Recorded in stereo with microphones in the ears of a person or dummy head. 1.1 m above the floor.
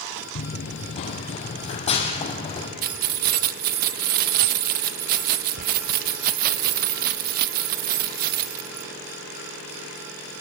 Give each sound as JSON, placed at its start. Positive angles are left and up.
{"t": 0.3, "sound": "running footsteps", "side_deg": 40, "distance_m": 1.5}
{"t": 2.8, "sound": "keys jangling", "side_deg": -55, "distance_m": 0.7}